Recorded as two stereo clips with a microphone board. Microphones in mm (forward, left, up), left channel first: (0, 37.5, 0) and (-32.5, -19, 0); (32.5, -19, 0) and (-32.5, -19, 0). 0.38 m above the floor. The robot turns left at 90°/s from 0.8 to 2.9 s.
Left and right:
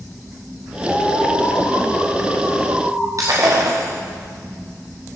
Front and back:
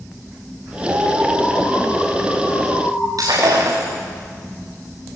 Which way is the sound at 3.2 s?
155° right.